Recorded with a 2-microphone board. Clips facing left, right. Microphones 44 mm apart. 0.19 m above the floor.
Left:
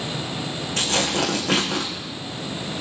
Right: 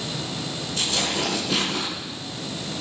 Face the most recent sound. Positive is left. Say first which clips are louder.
# left 3 dB
turn(degrees=60)  # may be behind; listen again after turning